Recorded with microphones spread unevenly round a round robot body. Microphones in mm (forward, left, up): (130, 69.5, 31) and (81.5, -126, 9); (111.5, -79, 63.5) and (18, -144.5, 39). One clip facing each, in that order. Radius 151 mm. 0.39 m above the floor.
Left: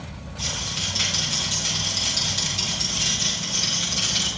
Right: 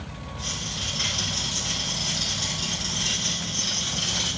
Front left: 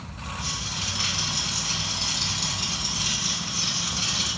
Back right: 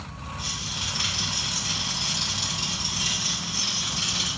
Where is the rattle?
145° left, 7.5 m.